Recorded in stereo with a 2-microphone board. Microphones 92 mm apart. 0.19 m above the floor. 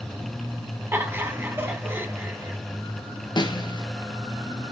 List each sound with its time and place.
0.9 s laughter: 25° right (ahead or behind), 1.5 m
3.4 s a snare drum: 50° left (ahead or behind), 0.8 m